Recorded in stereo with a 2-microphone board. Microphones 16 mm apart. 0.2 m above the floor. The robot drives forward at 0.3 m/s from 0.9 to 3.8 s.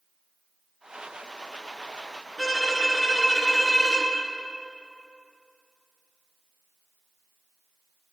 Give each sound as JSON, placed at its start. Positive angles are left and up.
{"t": 2.4, "sound": "a violin", "side_deg": 30, "distance_m": 1.9}